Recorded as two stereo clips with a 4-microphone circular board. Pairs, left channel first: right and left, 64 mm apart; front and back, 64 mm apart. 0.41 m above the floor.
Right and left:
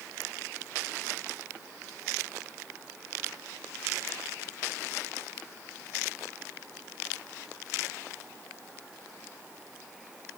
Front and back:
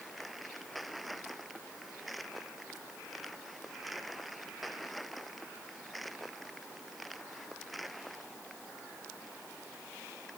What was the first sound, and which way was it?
Only background noise.